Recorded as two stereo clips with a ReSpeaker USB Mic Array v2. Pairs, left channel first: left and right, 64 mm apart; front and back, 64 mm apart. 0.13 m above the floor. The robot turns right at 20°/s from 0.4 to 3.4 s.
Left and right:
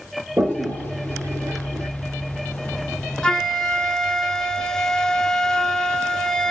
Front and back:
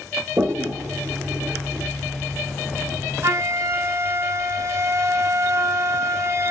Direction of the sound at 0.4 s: 145° right.